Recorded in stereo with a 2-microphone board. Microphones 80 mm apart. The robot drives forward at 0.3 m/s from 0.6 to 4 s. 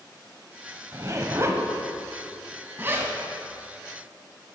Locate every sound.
0.9 s a zipper: 40° right (ahead or behind), 0.8 m; by 3.1 s 25° right (ahead or behind), 1.2 m